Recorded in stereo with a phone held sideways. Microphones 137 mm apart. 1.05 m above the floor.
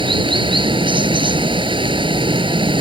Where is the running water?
40° right (ahead or behind).